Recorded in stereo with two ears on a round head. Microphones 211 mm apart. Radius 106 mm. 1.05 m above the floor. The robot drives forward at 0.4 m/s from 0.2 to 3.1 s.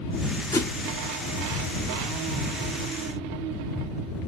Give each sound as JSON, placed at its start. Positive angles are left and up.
{"t": 0.5, "sound": "a whoosh", "side_deg": 10, "distance_m": 0.8}